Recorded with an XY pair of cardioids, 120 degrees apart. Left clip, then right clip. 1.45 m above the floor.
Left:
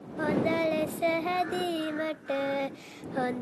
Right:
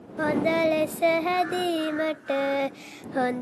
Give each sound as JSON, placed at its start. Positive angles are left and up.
{"t": 0.2, "sound": "singing", "azimuth_deg": -30}